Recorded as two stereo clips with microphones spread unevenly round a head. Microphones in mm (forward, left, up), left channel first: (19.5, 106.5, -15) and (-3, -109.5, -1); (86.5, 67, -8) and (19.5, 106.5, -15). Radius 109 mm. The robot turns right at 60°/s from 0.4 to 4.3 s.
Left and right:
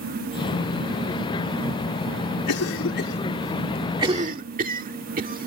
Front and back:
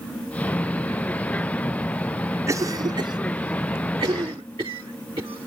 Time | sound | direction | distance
2.5 | a cough | 100° left | ?